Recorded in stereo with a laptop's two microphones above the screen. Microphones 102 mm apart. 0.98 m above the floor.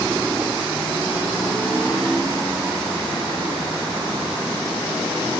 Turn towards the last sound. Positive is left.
No sound to turn to.